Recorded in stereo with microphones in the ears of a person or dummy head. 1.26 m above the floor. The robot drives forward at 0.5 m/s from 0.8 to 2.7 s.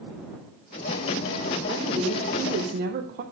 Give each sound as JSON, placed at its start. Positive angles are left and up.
{"t": 1.7, "sound": "a woman speaking", "side_deg": -25, "distance_m": 0.9}